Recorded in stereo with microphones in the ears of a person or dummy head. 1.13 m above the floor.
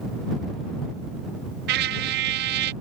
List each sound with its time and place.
1.7 s a trumpet: 60° right (ahead or behind)